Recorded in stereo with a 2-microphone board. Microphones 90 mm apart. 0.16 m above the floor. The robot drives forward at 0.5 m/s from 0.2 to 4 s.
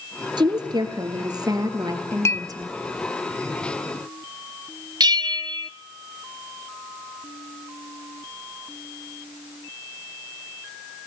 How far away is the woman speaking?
About 2.5 m.